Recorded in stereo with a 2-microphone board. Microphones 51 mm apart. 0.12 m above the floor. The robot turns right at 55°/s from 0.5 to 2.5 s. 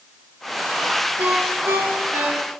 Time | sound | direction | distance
1.2 | a ringtone | 85° right | 7 m